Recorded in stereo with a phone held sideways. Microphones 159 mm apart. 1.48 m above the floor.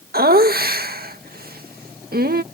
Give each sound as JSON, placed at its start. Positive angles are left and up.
{"t": 0.1, "sound": "laughter", "side_deg": -75}